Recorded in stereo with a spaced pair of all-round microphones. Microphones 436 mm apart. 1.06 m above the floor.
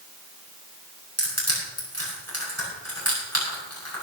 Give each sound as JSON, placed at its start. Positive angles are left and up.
{"t": 1.2, "sound": "crushing", "side_deg": 35, "distance_m": 7.0}